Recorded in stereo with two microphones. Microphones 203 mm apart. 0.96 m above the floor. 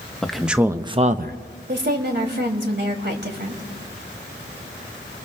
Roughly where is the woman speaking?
Right.